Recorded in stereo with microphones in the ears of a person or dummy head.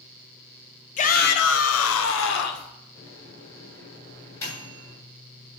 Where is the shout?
40° left (ahead or behind), 1.2 m; by 2.7 s 60° left (ahead or behind), 1.8 m.